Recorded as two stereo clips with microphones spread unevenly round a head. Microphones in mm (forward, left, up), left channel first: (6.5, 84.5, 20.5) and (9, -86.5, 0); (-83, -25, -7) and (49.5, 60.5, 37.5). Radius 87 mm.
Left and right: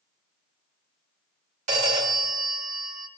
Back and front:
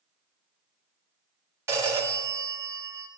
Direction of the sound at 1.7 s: 45° right.